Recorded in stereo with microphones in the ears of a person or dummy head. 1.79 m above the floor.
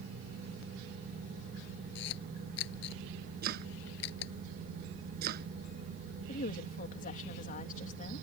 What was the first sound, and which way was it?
A camera shutter, 75° left (ahead or behind).